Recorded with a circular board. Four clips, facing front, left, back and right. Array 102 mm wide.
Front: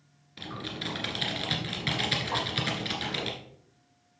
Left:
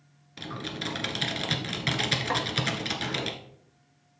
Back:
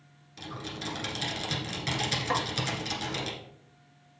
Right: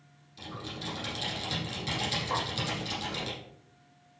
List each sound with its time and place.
0.4 s typing on a keyboard: 70° left, 1.6 m
2.3 s a snare drum: 120° left, 1.4 m